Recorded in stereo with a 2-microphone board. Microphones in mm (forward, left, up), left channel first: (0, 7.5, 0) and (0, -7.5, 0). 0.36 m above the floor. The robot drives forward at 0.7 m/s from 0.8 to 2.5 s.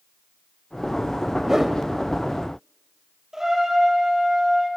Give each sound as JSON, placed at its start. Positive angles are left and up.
{"t": 1.5, "sound": "a whoosh", "side_deg": -20, "distance_m": 1.6}
{"t": 3.3, "sound": "a trumpet", "side_deg": -35, "distance_m": 6.0}